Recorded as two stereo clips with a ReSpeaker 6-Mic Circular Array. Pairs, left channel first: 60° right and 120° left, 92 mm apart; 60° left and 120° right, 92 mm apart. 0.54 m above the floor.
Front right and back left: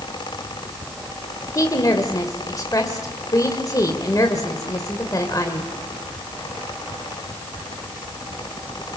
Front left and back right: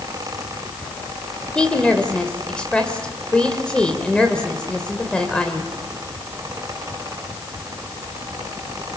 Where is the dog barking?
I don't hear a dog barking.